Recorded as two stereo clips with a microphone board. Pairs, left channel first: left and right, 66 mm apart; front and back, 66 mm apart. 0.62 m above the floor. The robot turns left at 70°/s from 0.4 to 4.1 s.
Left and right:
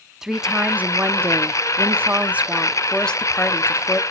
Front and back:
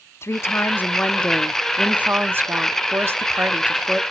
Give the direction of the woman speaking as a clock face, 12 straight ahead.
12 o'clock.